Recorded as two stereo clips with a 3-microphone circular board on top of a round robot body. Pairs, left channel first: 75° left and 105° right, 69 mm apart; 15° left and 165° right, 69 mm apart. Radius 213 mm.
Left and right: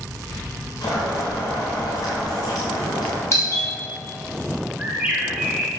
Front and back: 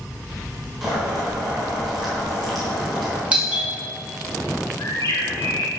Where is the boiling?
105° left, 3 m.